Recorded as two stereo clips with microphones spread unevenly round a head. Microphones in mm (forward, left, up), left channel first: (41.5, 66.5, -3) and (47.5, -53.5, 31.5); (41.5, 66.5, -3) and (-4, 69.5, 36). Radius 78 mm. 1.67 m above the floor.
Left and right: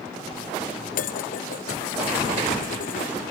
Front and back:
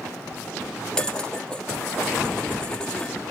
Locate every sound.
0.9 s dishes clattering: 90° left